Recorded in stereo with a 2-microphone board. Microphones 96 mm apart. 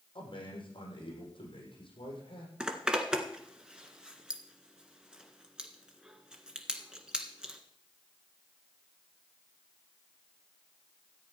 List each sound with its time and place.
0.1 s a man speaking: 65° left (ahead or behind), 6.5 m
2.6 s a zipper: 10° right (ahead or behind), 1.8 m